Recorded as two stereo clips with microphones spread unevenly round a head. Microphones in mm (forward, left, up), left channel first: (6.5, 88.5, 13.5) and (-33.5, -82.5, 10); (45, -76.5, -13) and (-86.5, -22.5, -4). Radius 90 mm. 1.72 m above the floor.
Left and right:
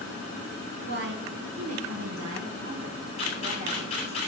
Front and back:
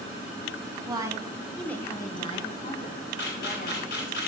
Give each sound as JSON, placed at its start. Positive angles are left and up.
{"t": 0.8, "sound": "a woman speaking", "azimuth_deg": -140, "distance_m": 2.0}
{"t": 3.2, "sound": "a camera shutter", "azimuth_deg": 15, "distance_m": 6.0}